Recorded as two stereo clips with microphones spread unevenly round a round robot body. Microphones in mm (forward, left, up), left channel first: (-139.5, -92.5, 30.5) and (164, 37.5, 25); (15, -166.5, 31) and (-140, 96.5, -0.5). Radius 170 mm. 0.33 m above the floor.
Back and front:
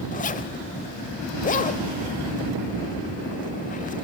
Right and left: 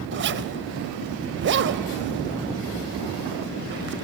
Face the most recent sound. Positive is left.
turn(degrees=145)